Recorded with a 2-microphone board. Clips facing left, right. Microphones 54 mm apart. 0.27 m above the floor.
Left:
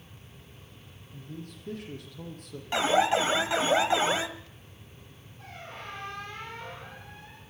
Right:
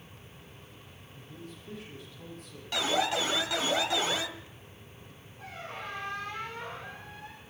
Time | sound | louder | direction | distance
1.1 | a man speaking | left 4 dB | 65° left (ahead or behind) | 8 m
2.7 | an alarm | left 5 dB | 30° left (ahead or behind) | 1.4 m
5.4 | a squeak | right 2 dB | centre (ahead or behind) | 6 m